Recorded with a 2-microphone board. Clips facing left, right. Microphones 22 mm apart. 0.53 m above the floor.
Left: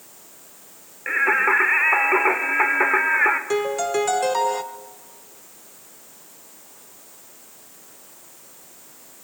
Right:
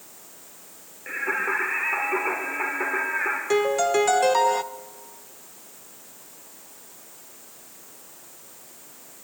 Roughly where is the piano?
Centre.